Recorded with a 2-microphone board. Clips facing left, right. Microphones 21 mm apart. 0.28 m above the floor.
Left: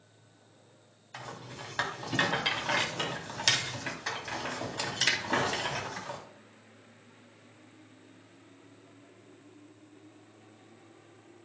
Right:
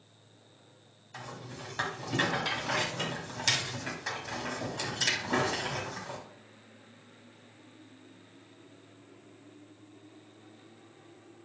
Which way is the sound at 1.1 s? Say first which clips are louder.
Left 1 dB; 20° left (ahead or behind).